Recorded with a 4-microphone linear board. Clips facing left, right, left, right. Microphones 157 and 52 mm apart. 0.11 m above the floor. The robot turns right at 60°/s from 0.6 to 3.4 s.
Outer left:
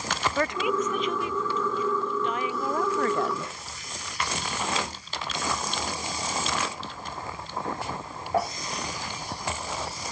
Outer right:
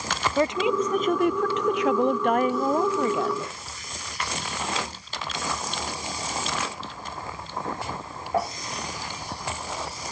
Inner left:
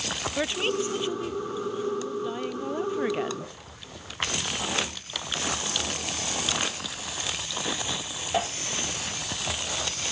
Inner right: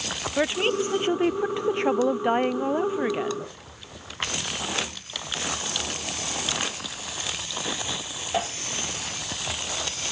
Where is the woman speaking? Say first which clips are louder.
Outer right 5 dB, inner right 4 dB; 160° right; by 3.5 s 10° left.